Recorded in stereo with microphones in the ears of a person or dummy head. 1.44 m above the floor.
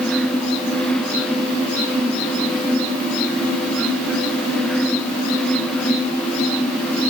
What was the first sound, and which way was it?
Only background noise.